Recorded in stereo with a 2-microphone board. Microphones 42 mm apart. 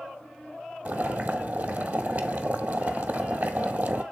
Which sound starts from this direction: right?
Boiling, at 0.8 s.